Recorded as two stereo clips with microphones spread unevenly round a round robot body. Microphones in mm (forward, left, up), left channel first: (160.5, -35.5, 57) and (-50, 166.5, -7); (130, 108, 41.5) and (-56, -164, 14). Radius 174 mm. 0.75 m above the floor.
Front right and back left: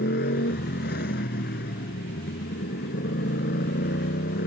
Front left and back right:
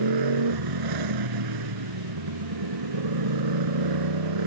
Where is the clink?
No clink in this recording.